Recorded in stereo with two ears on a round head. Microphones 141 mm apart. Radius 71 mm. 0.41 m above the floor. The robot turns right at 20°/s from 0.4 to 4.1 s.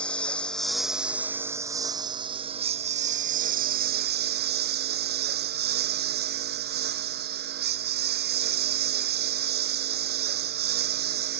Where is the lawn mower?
175° left; by 11.4 s 115° right.